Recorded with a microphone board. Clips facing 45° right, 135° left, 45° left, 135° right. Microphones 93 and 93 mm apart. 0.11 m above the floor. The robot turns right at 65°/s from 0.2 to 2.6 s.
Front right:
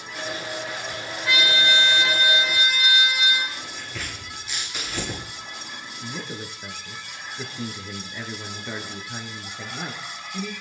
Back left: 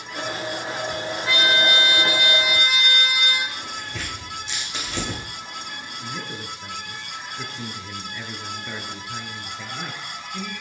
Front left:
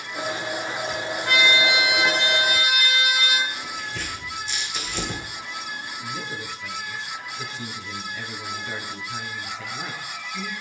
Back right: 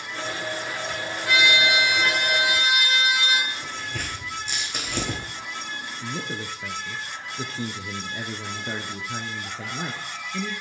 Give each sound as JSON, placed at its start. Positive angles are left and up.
{"t": 1.2, "sound": "a trumpet", "azimuth_deg": 75, "distance_m": 4.0}
{"t": 3.5, "sound": "tearing paper", "azimuth_deg": -165, "distance_m": 6.5}
{"t": 6.0, "sound": "a man speaking", "azimuth_deg": -120, "distance_m": 1.5}